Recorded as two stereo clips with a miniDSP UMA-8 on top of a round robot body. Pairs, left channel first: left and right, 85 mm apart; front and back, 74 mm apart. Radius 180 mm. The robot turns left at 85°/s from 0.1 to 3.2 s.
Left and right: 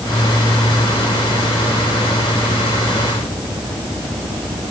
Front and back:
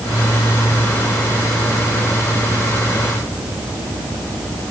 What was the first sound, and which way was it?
Only background noise.